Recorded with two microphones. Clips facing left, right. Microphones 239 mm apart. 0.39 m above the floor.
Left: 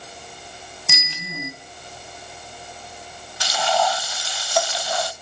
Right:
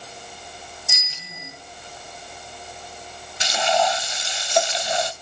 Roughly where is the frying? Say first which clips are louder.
Right 1 dB; right.